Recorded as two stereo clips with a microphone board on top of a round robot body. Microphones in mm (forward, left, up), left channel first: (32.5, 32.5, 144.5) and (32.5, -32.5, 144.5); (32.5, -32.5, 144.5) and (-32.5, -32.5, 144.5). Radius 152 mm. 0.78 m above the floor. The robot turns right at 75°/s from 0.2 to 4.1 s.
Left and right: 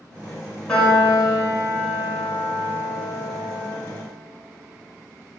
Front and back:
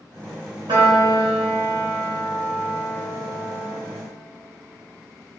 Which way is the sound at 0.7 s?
165° left.